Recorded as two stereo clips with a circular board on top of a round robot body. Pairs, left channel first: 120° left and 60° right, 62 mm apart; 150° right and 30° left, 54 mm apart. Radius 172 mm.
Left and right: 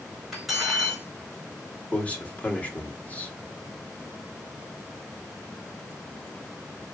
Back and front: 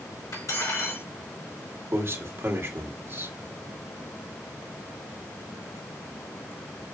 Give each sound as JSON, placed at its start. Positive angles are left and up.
{"t": 0.3, "sound": "cutlery clinking", "azimuth_deg": -145, "distance_m": 4.0}
{"t": 1.9, "sound": "a man speaking", "azimuth_deg": 55, "distance_m": 1.9}